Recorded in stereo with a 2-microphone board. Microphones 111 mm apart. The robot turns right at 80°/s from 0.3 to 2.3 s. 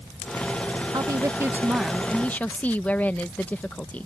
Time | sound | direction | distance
0.9 | a woman speaking | 80° right | ?